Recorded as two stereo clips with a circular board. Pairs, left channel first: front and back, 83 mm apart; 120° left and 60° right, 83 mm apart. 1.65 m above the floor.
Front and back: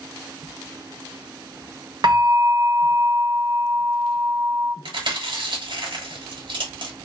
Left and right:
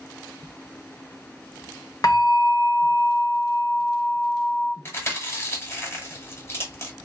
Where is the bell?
155° left, 1.1 m.